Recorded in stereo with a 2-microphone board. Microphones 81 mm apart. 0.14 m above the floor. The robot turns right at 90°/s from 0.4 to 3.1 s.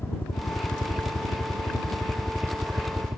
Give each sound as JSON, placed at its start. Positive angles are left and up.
{"t": 0.0, "sound": "a helicopter", "azimuth_deg": 30}